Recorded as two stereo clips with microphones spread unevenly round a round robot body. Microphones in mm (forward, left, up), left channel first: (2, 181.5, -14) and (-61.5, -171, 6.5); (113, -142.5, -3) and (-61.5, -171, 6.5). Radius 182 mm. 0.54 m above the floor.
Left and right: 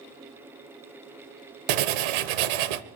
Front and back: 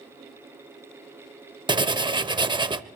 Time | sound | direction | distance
1.7 | writing | 100° right | 0.9 m